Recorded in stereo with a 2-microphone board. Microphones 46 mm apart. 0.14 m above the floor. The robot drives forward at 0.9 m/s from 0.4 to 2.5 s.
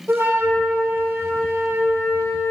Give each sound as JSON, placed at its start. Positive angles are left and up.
{"t": 0.1, "sound": "a flute", "side_deg": -70, "distance_m": 3.5}